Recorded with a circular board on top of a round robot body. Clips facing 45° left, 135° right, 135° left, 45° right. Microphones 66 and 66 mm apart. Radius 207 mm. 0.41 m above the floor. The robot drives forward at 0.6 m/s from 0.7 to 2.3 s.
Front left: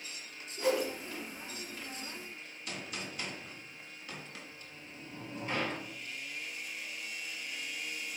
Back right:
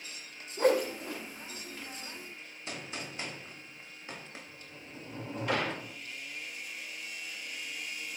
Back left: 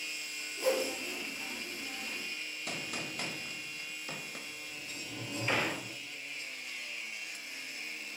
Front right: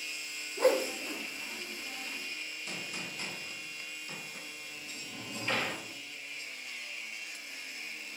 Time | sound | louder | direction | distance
0.6 | a whoosh | back right 5 dB, front right 4 dB | 90° right | 0.8 m
2.7 | a gunshot | back right 1 dB, back left 3 dB | 165° left | 1.2 m
4.5 | a sliding door | back right 2 dB, back left 1 dB | 150° right | 0.8 m